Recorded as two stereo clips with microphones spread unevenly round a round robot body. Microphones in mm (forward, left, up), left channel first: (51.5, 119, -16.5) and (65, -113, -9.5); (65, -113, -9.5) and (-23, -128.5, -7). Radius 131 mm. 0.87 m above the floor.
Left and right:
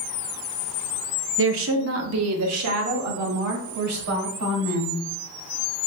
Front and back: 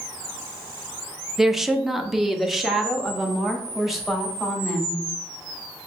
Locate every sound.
1.4 s a woman speaking: 80° right, 0.7 m